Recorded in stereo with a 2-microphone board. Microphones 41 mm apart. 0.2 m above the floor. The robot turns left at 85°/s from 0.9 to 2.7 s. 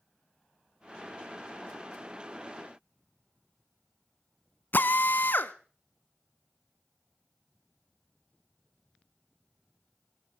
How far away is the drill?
About 0.7 m.